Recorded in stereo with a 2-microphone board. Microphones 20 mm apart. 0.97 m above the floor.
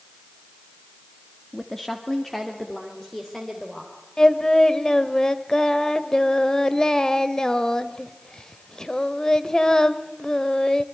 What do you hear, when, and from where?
1.5 s a woman speaking: 10° left (ahead or behind), 1.4 m; by 3.9 s 20° left (ahead or behind), 4 m
4.2 s singing: 30° left (ahead or behind), 1.4 m